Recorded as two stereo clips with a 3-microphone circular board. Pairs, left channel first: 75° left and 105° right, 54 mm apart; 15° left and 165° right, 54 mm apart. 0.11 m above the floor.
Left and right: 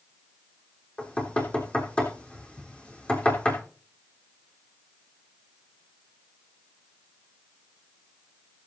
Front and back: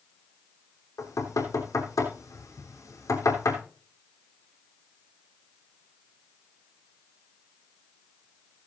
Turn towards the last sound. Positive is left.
turn(degrees=5)